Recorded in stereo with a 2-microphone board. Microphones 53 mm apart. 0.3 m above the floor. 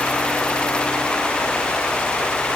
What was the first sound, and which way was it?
Only background noise.